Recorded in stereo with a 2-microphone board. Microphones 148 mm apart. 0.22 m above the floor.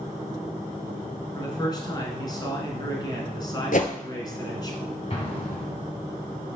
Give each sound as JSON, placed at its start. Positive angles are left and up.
{"t": 1.4, "sound": "a man speaking", "side_deg": 25, "distance_m": 1.8}
{"t": 3.7, "sound": "a whoosh", "side_deg": 65, "distance_m": 0.8}
{"t": 5.1, "sound": "an explosion", "side_deg": 45, "distance_m": 2.0}